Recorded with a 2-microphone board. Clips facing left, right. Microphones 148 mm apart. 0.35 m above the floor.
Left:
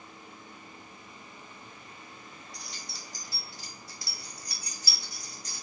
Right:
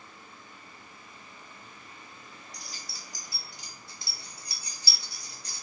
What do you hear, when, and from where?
2.5 s keys jangling: centre (ahead or behind), 0.9 m; by 5.6 s 35° right (ahead or behind), 1.5 m